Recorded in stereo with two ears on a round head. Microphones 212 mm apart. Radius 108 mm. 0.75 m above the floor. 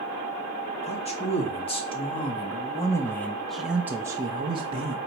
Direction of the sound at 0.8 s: 30° left (ahead or behind).